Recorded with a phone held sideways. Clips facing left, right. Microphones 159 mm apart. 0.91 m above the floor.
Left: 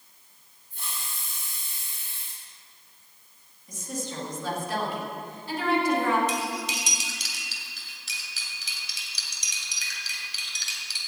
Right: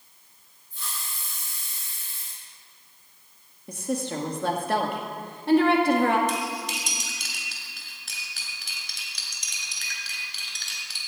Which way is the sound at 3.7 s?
70° right (ahead or behind).